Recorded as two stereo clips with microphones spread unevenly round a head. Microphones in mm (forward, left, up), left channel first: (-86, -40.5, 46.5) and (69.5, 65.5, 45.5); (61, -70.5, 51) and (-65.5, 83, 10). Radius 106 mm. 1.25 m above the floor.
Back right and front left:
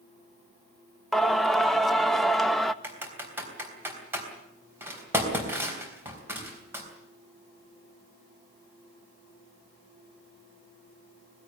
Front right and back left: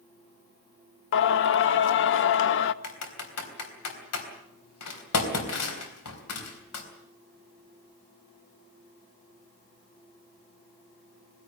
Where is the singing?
55° right, 0.7 m.